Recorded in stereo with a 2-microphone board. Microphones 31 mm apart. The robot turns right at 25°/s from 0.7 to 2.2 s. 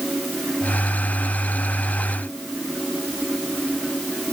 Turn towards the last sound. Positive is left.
No sound to turn to.